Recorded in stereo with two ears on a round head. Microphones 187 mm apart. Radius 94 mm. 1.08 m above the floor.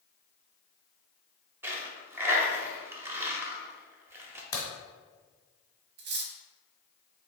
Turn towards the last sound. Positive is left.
turn(degrees=-60)  # may be behind; listen again after turning